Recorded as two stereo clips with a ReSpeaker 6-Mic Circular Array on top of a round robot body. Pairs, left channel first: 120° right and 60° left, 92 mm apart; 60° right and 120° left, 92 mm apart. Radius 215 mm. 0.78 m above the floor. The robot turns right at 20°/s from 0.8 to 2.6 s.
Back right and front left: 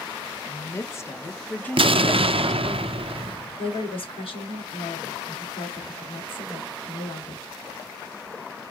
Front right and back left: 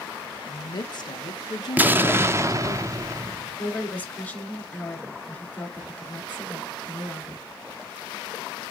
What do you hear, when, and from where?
0.5 s a woman speaking: 70° right, 1.3 m; by 2.8 s 35° right, 1.3 m
1.8 s an explosion: 45° left, 0.8 m; by 3.5 s 65° left, 0.8 m
3.6 s a woman speaking: 135° right, 3 m